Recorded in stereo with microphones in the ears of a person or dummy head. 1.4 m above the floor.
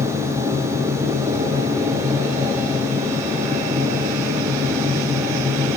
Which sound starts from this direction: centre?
A machine running, at 0.0 s.